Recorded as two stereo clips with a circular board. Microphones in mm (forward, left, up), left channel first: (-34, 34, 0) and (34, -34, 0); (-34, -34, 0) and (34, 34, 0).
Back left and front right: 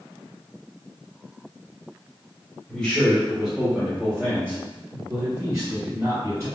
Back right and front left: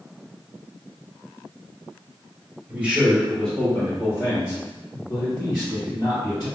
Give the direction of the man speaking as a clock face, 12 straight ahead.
9 o'clock.